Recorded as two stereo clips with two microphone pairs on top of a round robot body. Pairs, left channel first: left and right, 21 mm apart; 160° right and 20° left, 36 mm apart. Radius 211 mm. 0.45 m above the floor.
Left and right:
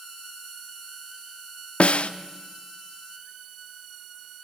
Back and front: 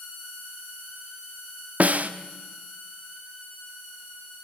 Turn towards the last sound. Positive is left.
turn(degrees=65)